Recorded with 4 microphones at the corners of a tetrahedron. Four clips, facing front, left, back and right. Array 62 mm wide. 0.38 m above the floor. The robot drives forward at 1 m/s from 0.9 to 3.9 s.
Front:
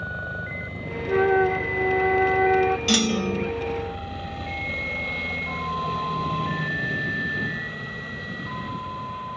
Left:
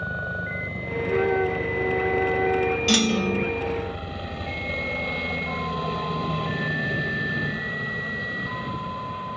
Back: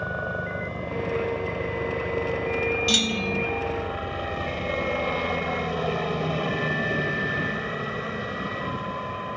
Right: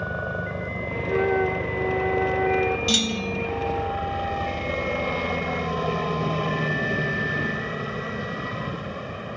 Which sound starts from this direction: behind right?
A helicopter, at 0.0 s.